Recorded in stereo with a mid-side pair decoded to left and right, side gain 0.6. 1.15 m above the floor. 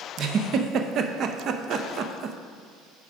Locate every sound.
0.2 s a giggle: 50° right, 0.5 m